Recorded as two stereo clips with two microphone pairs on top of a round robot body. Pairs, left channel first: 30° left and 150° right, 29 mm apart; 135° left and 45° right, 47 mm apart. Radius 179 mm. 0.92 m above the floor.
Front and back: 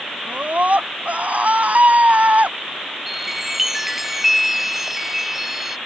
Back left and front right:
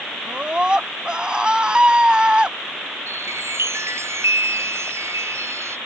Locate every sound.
0.2 s a scream: 120° right
3.1 s a chime: 70° right